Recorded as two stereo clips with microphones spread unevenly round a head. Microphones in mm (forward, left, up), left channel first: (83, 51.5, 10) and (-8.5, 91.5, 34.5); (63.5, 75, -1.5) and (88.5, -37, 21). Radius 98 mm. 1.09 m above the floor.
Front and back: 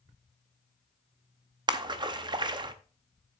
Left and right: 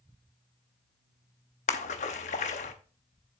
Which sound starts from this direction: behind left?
A splash, at 1.7 s.